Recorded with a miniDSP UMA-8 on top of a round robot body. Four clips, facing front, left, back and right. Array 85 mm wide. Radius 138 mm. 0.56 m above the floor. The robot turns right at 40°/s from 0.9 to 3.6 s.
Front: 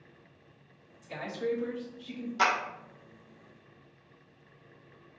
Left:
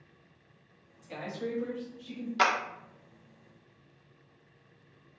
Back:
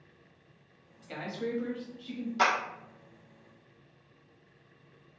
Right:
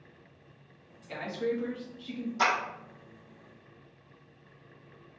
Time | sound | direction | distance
1.0 | a man speaking | 155° right | 1.2 m
2.4 | a clap | 90° left | 1.0 m